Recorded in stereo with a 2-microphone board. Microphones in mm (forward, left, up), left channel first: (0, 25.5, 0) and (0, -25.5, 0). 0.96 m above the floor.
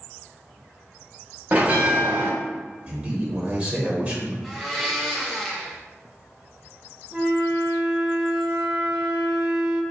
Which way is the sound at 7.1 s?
20° right (ahead or behind).